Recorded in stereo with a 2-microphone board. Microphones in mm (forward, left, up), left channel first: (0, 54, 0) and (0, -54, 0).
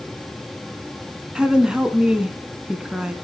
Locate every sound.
1.4 s a woman speaking: 10° right (ahead or behind), 2 m